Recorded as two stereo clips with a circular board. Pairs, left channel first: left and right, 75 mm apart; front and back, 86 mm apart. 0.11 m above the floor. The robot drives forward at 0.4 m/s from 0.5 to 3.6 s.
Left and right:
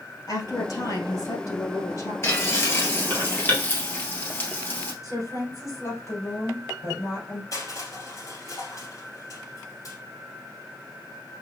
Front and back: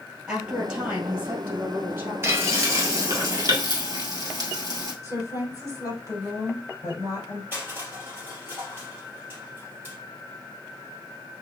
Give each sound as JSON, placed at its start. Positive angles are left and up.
{"t": 0.3, "sound": "a woman speaking", "azimuth_deg": 100, "distance_m": 2.0}
{"t": 2.2, "sound": "frying", "azimuth_deg": 130, "distance_m": 1.3}
{"t": 5.0, "sound": "a woman speaking", "azimuth_deg": 130, "distance_m": 3.5}
{"t": 7.5, "sound": "crushing", "azimuth_deg": 120, "distance_m": 3.0}